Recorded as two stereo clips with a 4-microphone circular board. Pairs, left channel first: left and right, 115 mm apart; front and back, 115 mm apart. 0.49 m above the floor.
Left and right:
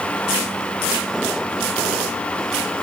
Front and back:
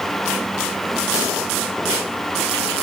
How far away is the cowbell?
No cowbell in this recording.